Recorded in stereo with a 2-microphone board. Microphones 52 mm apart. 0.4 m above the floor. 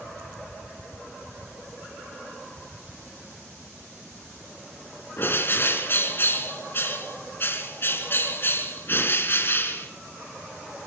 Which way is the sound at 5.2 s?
45° left (ahead or behind).